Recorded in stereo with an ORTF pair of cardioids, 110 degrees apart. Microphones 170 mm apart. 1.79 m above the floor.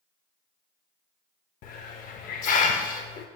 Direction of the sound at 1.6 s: 55° left.